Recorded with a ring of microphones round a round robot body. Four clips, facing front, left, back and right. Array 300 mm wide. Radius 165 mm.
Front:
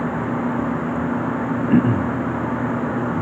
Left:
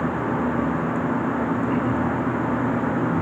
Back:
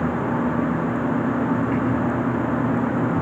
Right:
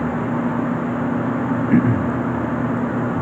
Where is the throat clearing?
45° right.